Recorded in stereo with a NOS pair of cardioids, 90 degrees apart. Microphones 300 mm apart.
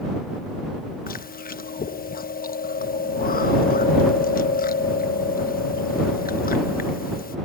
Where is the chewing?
30° left.